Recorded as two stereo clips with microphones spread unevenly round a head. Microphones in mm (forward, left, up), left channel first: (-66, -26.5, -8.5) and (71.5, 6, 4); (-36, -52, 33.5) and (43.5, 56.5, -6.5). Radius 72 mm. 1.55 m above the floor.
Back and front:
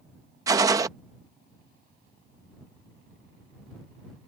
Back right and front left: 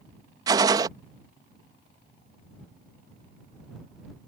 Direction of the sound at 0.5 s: 20° right.